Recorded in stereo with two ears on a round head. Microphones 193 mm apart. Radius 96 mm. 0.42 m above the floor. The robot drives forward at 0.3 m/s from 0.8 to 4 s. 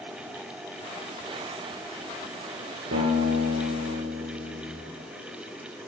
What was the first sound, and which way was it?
A guitar, 55° right (ahead or behind).